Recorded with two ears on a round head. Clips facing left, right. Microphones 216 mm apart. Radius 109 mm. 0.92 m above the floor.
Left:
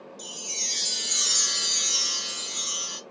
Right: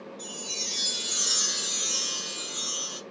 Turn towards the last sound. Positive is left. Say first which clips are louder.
# right 2 dB
turn(degrees=35)  # may be behind; listen again after turning